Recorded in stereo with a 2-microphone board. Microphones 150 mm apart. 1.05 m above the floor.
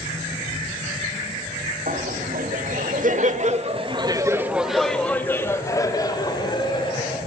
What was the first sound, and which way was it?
Laughter, 75° right (ahead or behind).